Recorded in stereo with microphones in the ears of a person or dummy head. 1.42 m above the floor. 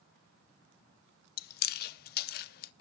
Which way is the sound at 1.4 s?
55° left (ahead or behind).